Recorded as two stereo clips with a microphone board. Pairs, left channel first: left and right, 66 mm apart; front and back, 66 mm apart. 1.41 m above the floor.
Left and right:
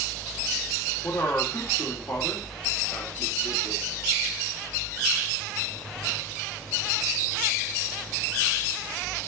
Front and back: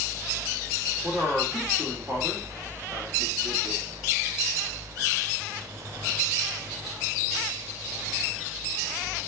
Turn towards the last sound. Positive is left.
turn(degrees=120)